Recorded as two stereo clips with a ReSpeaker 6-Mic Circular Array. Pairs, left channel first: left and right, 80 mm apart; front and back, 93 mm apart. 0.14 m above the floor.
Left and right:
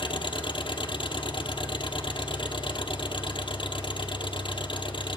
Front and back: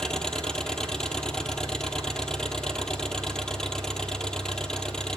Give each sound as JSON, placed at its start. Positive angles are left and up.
{"t": 0.0, "sound": "an engine running", "azimuth_deg": 80, "distance_m": 1.7}